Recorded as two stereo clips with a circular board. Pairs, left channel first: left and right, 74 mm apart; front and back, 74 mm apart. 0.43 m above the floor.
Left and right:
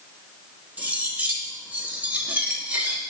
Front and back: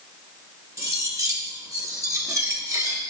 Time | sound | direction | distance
0.8 | cutlery clinking | 155° right | 0.9 m